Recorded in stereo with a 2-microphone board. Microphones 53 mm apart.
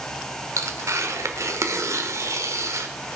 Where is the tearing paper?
65° right (ahead or behind), 1.3 m.